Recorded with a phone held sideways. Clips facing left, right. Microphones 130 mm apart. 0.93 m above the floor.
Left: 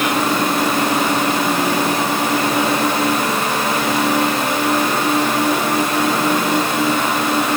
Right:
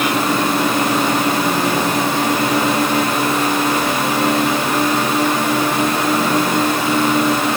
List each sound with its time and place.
Only background noise.